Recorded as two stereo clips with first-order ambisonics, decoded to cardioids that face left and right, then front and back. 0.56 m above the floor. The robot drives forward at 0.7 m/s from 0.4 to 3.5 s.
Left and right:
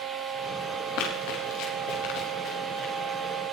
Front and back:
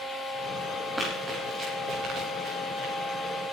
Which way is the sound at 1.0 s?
100° left.